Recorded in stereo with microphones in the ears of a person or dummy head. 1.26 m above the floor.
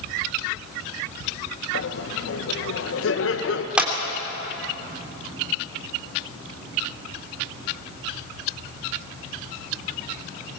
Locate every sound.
1.7 s laughter: 65° left (ahead or behind), 1.5 m
3.8 s a clap: 10° right (ahead or behind), 3 m